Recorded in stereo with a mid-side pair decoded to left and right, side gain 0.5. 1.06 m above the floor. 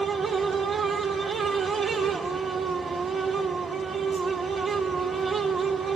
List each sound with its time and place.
0.0 s a fan: 45° right, 1.9 m